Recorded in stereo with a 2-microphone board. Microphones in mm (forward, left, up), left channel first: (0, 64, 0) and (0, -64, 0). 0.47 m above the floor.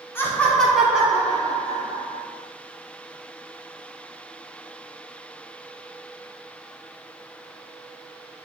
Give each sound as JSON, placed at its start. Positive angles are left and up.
{"t": 0.1, "sound": "laughter", "side_deg": 20, "distance_m": 0.7}